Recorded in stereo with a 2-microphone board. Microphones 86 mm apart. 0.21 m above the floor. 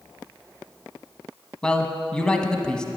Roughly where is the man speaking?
Centre.